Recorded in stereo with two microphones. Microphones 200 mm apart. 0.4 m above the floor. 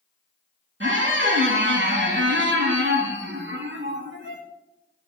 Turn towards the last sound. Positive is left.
turn(degrees=-70)  # may be behind; listen again after turning